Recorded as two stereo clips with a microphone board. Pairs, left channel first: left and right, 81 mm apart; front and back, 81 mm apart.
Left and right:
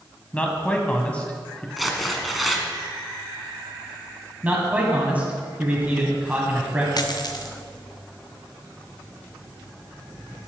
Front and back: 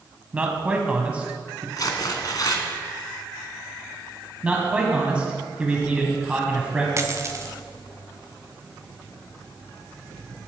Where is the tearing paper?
Straight ahead, 1.3 m.